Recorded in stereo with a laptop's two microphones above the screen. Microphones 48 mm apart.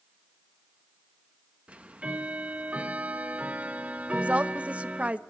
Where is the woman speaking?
25° right (ahead or behind), 0.8 m.